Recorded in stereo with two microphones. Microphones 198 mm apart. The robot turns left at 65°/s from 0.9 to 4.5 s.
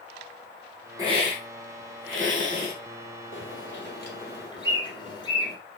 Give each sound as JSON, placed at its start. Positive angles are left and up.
{"t": 1.0, "sound": "a hiss", "azimuth_deg": -15, "distance_m": 3.0}
{"t": 3.3, "sound": "a bird", "side_deg": 75, "distance_m": 3.5}